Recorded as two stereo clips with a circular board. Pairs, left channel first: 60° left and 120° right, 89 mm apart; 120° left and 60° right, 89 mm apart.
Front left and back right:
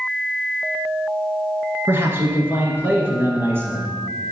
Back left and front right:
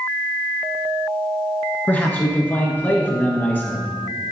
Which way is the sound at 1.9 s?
175° right.